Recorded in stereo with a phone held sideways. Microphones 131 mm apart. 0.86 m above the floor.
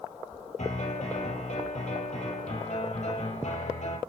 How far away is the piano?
About 5.5 m.